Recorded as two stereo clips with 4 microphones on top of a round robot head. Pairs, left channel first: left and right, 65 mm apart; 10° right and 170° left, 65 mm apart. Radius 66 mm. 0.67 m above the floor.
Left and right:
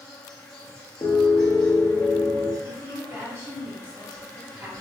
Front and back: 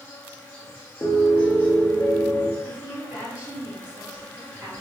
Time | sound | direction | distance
0.0 | an insect | 55° left | 0.9 m
1.0 | a piano | 45° left | 0.6 m
2.6 | a woman speaking | 120° right | 1.7 m